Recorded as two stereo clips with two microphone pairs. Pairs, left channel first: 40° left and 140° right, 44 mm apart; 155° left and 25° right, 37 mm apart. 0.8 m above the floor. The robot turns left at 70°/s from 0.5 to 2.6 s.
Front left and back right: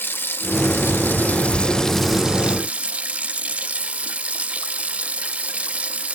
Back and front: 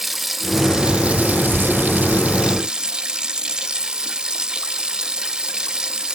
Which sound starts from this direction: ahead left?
Running water, at 0.0 s.